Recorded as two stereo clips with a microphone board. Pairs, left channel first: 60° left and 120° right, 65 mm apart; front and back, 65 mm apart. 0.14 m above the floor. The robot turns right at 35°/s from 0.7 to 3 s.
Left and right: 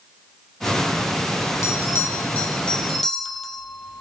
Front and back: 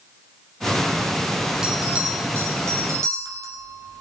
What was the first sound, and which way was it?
A bell, 100° left.